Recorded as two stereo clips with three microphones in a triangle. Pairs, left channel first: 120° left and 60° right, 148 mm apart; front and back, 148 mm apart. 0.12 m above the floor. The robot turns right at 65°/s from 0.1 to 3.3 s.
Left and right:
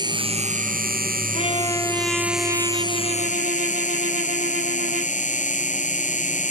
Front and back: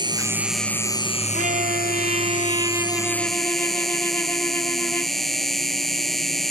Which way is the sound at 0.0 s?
120° right.